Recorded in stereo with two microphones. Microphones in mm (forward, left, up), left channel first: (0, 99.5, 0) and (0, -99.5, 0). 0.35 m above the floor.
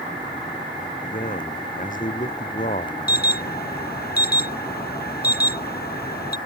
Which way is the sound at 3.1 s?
55° left (ahead or behind).